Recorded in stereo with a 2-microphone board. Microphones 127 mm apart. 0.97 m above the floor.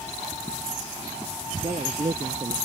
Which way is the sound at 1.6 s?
45° right (ahead or behind).